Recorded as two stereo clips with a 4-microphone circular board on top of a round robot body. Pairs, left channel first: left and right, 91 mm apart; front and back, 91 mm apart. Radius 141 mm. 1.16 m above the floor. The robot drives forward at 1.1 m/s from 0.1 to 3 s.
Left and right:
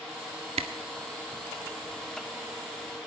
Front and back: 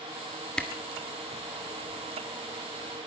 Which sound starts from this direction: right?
A camera shutter, at 0.6 s.